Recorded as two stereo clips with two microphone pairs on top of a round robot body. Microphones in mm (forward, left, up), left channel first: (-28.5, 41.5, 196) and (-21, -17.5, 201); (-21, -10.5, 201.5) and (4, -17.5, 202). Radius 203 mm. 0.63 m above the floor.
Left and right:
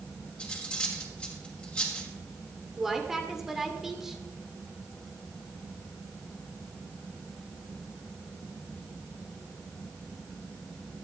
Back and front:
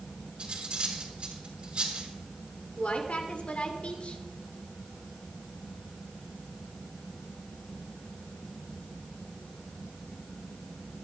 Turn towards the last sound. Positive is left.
turn(degrees=-170)